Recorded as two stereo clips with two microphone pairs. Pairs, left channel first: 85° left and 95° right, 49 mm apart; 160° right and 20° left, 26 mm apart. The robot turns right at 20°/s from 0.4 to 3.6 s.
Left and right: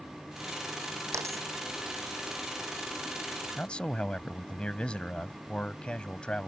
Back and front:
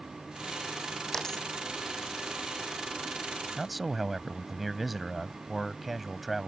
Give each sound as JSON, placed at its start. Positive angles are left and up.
{"t": 1.1, "sound": "a dropped coin", "azimuth_deg": -90}
{"t": 3.6, "sound": "a man speaking", "azimuth_deg": 100}